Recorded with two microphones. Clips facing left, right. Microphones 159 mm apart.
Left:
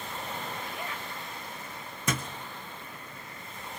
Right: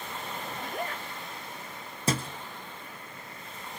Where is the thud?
30° right (ahead or behind), 1.5 m.